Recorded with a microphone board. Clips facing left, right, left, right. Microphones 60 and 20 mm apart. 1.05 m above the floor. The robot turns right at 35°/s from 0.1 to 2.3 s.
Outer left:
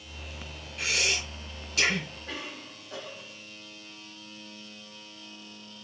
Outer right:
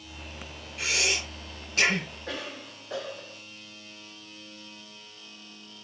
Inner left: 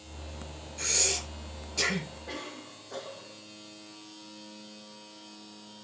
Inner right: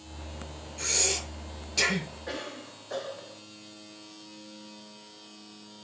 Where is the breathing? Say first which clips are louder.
Outer right 1 dB, inner right 1 dB; 5° right (ahead or behind), 4.5 m; by 2.1 s 50° right (ahead or behind), 4.5 m.